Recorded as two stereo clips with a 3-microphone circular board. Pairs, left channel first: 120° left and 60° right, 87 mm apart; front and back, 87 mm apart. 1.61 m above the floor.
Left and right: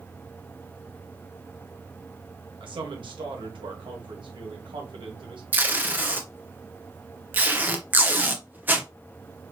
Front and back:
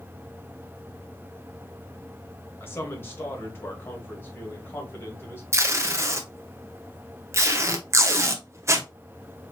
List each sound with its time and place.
2.6 s a man speaking: 60° right, 1.4 m
5.5 s tape being pulled: 125° right, 0.7 m